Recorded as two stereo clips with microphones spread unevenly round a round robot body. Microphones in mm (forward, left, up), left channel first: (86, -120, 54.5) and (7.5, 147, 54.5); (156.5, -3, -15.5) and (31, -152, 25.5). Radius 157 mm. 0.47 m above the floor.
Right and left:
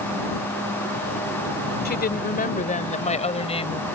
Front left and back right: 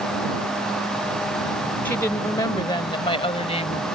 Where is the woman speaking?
25° right; by 3.9 s 5° right.